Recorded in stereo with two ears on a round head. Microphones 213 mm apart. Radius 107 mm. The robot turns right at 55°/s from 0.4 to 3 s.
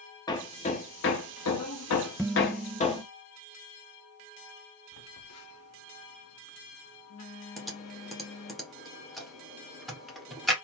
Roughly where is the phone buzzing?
Left.